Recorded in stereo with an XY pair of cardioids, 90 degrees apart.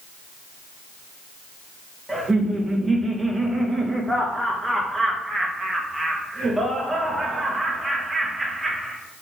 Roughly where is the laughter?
Ahead.